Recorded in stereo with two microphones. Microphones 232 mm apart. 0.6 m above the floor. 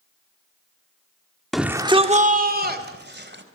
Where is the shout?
Centre (ahead or behind), 1.2 m; by 3.4 s 50° right (ahead or behind), 3 m.